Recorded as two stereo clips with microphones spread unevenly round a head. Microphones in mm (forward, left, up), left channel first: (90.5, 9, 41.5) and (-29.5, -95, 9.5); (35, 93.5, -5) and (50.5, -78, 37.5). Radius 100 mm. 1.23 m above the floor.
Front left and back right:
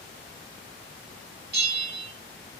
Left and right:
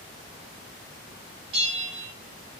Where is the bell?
120° right, 3 m.